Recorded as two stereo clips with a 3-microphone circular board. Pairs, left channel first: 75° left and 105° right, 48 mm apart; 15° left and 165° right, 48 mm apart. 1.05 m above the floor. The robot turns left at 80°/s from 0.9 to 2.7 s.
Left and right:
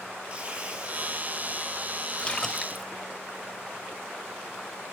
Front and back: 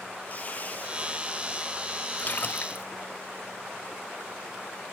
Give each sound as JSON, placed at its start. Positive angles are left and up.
{"t": 0.3, "sound": "tearing paper", "azimuth_deg": -40, "distance_m": 6.0}
{"t": 2.2, "sound": "a splash", "azimuth_deg": 25, "distance_m": 0.6}